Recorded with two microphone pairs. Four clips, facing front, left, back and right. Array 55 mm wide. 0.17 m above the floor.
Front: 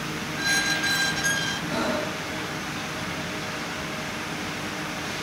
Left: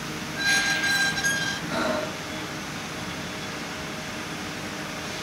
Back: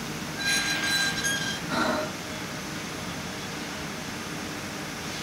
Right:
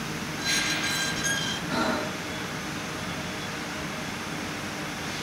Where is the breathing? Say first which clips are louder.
Right 1 dB, back 2 dB; 170° left, 1.6 m.